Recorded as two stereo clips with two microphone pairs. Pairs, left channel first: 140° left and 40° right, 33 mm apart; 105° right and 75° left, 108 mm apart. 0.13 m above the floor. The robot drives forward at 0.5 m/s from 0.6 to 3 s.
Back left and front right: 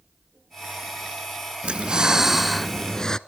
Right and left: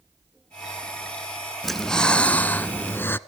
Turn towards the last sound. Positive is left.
turn(degrees=-165)